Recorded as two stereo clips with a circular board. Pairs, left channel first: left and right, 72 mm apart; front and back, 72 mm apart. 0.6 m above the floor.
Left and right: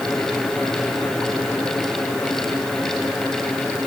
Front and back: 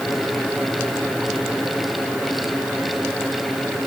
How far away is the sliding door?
I don't hear a sliding door.